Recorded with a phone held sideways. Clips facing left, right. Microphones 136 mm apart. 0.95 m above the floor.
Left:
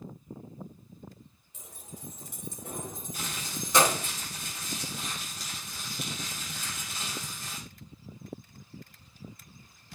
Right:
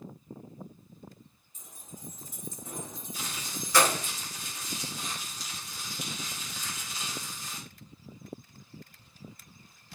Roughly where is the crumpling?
Left.